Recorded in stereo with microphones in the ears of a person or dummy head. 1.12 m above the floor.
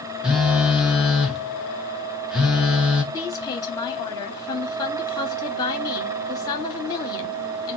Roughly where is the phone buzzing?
Centre.